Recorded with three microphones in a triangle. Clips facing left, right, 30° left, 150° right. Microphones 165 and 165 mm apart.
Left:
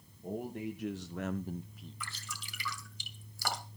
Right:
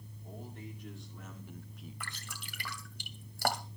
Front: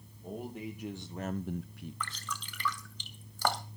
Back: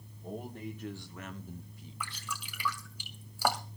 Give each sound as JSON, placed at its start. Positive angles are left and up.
{"t": 0.2, "sound": "a man speaking", "azimuth_deg": 120, "distance_m": 2.0}
{"t": 2.0, "sound": "dripping", "azimuth_deg": -70, "distance_m": 2.5}